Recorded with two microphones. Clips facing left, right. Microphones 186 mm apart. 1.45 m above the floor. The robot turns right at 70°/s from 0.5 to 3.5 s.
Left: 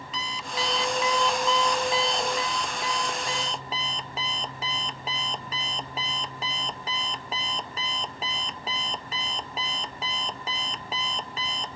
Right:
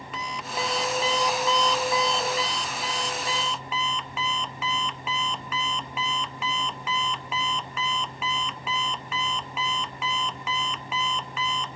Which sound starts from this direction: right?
An alarm clock, at 0.1 s.